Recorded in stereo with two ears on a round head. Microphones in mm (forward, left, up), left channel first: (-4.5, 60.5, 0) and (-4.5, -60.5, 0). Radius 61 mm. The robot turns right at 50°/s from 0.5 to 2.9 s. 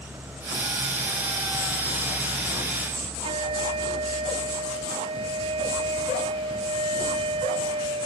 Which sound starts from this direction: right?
A flute, at 3.2 s.